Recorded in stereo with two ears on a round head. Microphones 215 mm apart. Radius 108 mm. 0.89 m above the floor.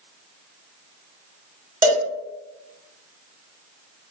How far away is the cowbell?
About 0.9 m.